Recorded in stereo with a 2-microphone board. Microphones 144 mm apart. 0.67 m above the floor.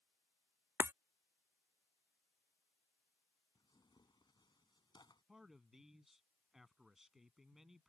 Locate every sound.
0.8 s breaking glass: 15° right (ahead or behind)
3.5 s tearing paper: 30° left (ahead or behind)
5.3 s a man speaking: centre (ahead or behind)